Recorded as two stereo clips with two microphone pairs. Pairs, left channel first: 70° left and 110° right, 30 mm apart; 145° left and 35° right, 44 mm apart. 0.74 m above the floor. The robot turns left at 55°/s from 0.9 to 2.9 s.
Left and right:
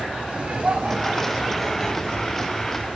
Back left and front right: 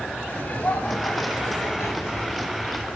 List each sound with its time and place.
0.3 s laughter: 160° right, 3 m; by 2.5 s 110° left, 3 m